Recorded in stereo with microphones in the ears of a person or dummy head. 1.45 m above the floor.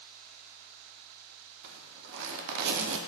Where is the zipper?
65° right (ahead or behind), 0.6 m.